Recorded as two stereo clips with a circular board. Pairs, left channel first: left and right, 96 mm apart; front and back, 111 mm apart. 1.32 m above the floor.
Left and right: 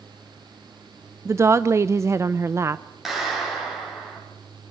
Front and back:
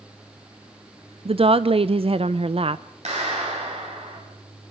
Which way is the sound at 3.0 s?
175° right.